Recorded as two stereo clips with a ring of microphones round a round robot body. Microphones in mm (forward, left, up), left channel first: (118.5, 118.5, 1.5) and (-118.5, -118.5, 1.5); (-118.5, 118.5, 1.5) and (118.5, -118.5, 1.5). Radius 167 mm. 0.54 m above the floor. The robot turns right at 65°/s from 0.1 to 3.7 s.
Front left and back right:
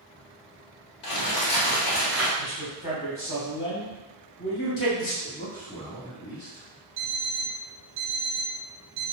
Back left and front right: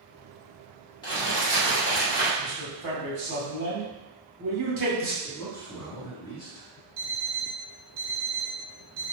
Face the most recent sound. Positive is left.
turn(degrees=-110)